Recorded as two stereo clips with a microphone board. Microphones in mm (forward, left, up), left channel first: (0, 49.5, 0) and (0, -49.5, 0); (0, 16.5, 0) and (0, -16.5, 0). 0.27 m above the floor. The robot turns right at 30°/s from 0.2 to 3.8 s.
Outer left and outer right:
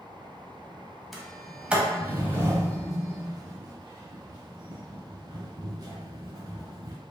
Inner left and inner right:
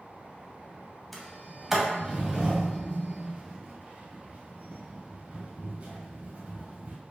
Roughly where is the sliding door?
Centre.